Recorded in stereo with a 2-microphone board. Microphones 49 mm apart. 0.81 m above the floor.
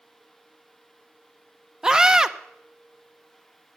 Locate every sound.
1.8 s a scream: 15° right (ahead or behind), 0.8 m